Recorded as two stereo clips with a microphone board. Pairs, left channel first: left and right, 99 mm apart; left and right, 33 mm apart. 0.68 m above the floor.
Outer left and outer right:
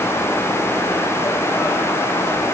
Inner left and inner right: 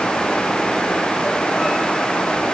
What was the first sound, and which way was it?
Only background noise.